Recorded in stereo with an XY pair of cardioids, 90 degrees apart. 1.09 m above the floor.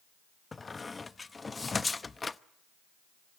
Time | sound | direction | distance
0.5 | a squeak | 30° left | 0.8 m